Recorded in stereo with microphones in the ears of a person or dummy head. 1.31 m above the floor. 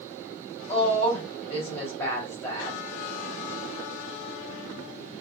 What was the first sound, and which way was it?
A woman speaking, 10° left (ahead or behind).